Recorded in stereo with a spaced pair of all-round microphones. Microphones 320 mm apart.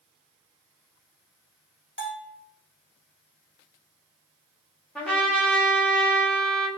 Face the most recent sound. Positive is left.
turn(degrees=5)  # may be behind; listen again after turning